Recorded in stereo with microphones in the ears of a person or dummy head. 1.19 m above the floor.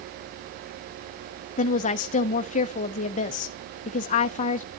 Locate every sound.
1.6 s a woman speaking: 35° left (ahead or behind), 0.6 m